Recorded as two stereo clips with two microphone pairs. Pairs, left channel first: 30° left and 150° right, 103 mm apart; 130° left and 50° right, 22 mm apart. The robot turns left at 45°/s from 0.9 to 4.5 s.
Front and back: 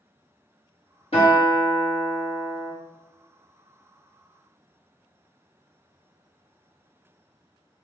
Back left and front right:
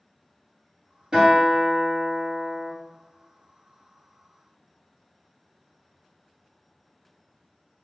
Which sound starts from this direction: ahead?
A guitar, at 1.1 s.